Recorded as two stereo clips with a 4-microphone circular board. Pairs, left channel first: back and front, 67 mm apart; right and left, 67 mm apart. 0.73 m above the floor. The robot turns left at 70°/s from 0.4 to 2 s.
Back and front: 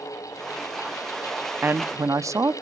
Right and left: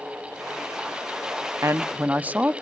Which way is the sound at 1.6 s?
55° left.